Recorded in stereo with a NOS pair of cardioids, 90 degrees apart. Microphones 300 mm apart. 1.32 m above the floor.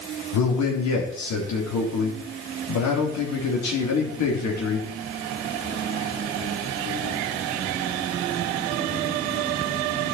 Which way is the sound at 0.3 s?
65° left.